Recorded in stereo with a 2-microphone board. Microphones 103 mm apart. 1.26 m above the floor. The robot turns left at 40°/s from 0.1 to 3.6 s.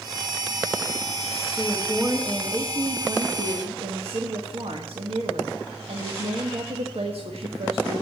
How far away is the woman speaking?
About 1.5 m.